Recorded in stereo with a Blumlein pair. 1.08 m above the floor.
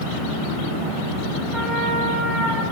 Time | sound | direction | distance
1.5 | a trumpet | 10° right | 1.1 m